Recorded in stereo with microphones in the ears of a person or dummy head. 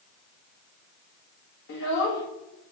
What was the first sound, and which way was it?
A child speaking, 65° left (ahead or behind).